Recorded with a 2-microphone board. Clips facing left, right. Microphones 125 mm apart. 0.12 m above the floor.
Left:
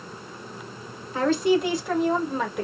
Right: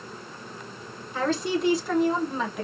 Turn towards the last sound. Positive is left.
turn(degrees=5)  # may be behind; listen again after turning